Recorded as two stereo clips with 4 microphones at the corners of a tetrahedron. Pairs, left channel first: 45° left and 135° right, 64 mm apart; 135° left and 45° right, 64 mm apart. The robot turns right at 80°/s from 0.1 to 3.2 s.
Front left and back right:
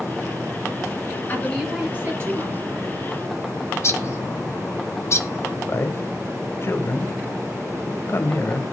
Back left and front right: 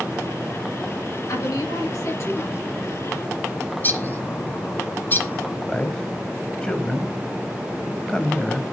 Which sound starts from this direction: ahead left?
A man speaking, at 5.7 s.